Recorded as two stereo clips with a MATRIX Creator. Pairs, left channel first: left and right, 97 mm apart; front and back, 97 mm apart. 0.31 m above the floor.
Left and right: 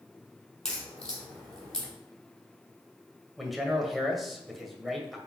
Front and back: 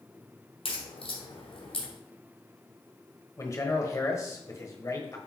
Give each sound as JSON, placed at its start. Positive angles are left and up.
{"t": 0.7, "sound": "a crack", "azimuth_deg": 5, "distance_m": 3.0}
{"t": 3.4, "sound": "a man speaking", "azimuth_deg": 0, "distance_m": 1.5}